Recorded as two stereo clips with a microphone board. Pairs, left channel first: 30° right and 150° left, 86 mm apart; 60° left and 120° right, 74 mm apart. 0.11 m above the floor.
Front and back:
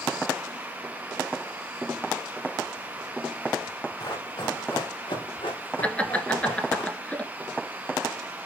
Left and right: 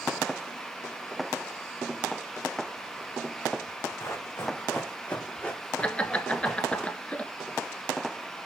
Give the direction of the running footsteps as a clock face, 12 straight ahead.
12 o'clock.